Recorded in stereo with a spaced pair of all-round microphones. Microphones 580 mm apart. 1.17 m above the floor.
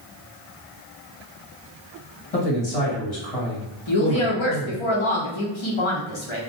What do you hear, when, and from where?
2.3 s a man speaking: 75° left (ahead or behind), 1.5 m
3.9 s a woman speaking: 55° left (ahead or behind), 1.0 m